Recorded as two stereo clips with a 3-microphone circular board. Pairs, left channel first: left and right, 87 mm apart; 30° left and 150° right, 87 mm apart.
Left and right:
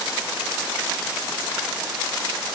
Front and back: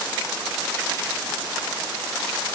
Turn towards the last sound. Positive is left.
No sound to turn to.